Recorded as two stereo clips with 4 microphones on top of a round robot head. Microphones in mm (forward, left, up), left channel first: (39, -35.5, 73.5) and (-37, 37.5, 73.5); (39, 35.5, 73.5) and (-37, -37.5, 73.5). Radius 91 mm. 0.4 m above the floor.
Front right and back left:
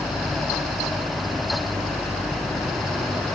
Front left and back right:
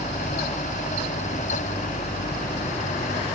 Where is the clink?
No clink in this recording.